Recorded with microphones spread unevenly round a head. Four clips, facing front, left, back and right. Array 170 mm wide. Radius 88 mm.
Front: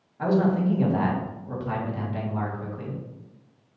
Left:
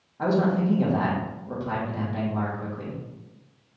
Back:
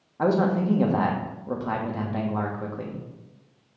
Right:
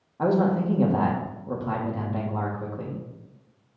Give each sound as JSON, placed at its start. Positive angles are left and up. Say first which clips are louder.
{"t": 0.2, "sound": "a man speaking", "louder": "right 1 dB, even", "azimuth_deg": -160, "distance_m": 1.0}